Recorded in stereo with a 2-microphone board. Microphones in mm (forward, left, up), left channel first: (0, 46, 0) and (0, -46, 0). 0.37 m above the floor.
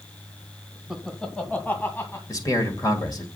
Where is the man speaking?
40° left (ahead or behind), 1.9 m.